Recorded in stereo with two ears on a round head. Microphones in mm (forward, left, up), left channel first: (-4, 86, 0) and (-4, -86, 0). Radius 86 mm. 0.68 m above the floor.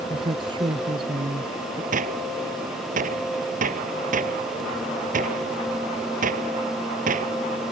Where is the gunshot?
45° right (ahead or behind).